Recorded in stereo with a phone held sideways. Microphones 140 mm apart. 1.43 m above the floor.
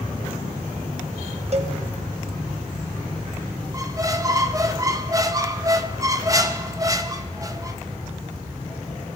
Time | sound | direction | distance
1.5 | a cowbell | 50° right (ahead or behind) | 0.8 m
3.7 | a squeak | 25° right (ahead or behind) | 0.7 m